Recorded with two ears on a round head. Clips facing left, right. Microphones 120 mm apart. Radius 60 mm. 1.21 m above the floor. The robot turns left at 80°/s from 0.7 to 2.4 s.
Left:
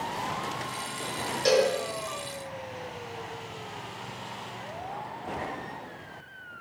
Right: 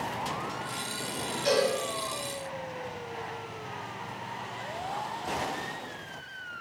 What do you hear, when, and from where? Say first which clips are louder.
1.4 s a cowbell: left 3 dB; 65° left (ahead or behind), 0.8 m; by 1.7 s 50° left (ahead or behind), 0.8 m